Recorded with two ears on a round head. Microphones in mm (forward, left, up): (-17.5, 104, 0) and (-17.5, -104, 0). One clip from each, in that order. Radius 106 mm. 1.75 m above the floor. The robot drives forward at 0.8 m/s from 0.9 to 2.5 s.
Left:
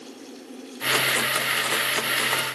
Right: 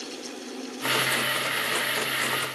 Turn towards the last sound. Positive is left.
No sound to turn to.